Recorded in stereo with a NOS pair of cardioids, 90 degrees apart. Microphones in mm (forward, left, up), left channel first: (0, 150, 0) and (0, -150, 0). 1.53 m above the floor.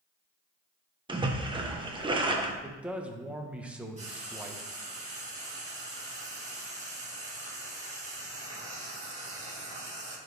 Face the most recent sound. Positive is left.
turn(degrees=-25)